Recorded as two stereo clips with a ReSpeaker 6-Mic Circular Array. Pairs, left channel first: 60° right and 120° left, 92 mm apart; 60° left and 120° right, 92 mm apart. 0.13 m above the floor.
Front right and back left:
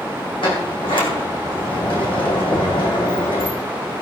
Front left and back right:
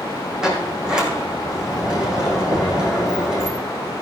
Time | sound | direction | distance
0.4 | a sliding door | 35° right | 3 m
2.5 | knocking | 105° right | 6 m